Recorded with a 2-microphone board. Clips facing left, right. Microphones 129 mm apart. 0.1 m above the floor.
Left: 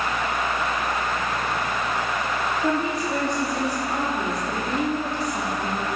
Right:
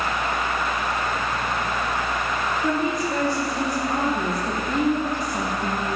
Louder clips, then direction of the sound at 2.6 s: Right 1 dB; 5° left (ahead or behind).